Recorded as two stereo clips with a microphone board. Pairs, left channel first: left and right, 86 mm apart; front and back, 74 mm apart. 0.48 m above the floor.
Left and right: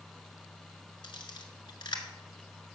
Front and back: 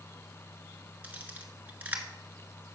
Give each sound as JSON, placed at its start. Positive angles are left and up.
{"t": 1.0, "sound": "a camera shutter", "azimuth_deg": 115, "distance_m": 1.2}